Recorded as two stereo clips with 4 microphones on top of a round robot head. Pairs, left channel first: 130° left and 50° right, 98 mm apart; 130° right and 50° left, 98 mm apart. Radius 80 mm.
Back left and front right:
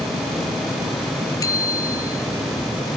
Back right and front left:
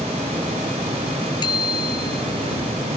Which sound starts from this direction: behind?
A bicycle bell, at 1.4 s.